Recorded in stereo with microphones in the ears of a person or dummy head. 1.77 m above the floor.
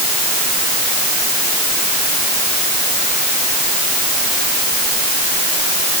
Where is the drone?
No drone in this recording.